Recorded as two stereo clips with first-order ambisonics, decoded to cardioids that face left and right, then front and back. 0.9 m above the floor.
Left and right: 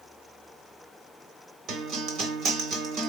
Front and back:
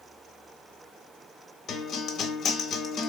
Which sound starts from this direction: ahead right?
A guitar, at 1.7 s.